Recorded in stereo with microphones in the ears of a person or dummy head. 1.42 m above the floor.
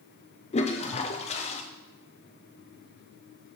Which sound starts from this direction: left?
A toilet flushing, at 0.5 s.